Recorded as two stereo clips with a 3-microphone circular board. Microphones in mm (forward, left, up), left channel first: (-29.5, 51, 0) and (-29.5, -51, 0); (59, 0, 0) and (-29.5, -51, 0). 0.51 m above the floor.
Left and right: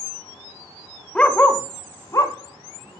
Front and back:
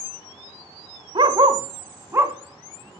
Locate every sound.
1.1 s a dog barking: 170° left, 1.1 m; by 3.0 s 135° left, 1.9 m